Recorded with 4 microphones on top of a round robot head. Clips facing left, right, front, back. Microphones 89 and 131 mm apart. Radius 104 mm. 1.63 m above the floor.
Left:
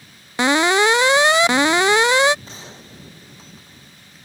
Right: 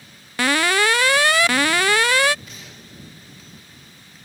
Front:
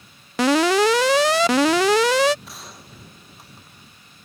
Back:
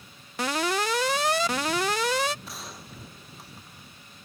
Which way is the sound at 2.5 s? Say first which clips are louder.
Left 3 dB, even; 90° left.